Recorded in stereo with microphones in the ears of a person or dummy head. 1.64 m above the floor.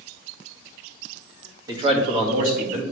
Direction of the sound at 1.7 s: 20° right (ahead or behind).